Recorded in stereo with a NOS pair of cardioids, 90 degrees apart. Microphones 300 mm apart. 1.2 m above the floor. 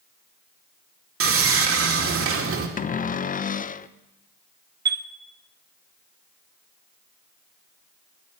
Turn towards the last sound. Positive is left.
turn(degrees=-35)